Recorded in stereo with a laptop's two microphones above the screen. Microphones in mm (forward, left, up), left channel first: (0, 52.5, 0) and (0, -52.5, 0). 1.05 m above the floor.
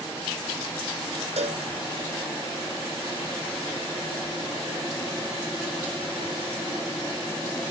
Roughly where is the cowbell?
Right.